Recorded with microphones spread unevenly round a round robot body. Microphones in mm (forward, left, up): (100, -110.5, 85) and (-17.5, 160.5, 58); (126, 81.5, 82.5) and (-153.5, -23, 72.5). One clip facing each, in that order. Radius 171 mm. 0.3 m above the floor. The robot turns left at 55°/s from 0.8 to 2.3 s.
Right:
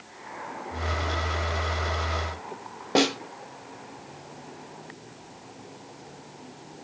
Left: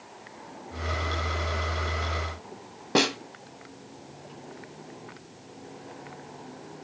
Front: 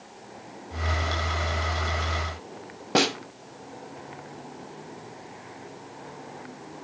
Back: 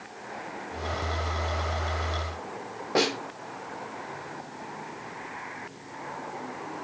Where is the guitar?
No guitar in this recording.